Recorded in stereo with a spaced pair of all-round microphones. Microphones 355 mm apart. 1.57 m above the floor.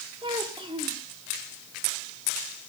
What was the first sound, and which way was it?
A child speaking, 15° right (ahead or behind).